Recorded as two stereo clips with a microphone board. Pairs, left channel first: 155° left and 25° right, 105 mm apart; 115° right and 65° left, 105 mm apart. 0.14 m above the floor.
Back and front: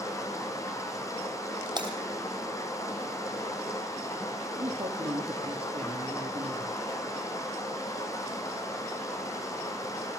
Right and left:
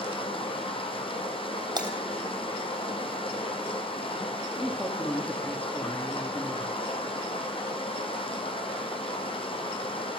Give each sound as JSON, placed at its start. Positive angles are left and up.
{"t": 0.0, "sound": "running water", "azimuth_deg": -145, "distance_m": 2.5}
{"t": 1.8, "sound": "breaking glass", "azimuth_deg": 20, "distance_m": 3.0}
{"t": 4.6, "sound": "a man speaking", "azimuth_deg": -35, "distance_m": 2.5}